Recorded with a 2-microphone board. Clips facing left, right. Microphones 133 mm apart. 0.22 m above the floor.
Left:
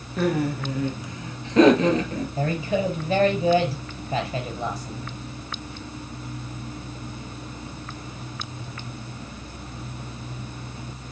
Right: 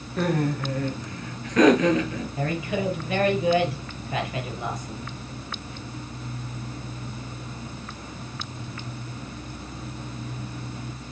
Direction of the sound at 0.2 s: Centre (ahead or behind).